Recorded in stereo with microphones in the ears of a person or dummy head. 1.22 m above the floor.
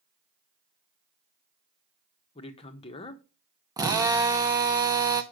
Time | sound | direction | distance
2.4 | a man speaking | 35° left (ahead or behind) | 1.1 m
3.8 | a drill | 15° right (ahead or behind) | 0.8 m